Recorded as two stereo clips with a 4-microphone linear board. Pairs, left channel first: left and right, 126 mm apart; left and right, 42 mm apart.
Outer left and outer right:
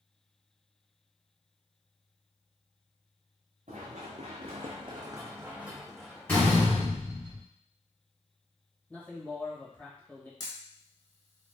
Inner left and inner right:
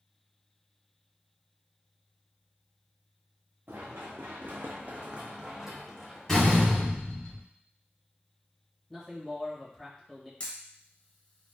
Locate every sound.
3.7 s running footsteps: 70° right (ahead or behind), 1.2 m; by 6.8 s 25° left (ahead or behind), 1.1 m
6.3 s a door slam: 15° left (ahead or behind), 1.7 m
8.9 s a man speaking: 15° left (ahead or behind), 1.2 m
10.4 s a camera shutter: 30° left (ahead or behind), 0.9 m